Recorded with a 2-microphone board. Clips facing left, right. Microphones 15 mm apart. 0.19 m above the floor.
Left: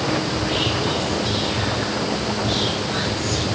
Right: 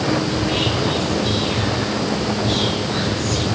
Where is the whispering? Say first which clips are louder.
Right 2 dB; 5° left (ahead or behind), 2.0 m.